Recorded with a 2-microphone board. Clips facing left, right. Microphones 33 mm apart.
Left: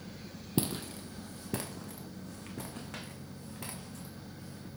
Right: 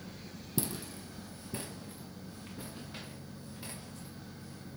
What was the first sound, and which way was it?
Footsteps, 40° left (ahead or behind).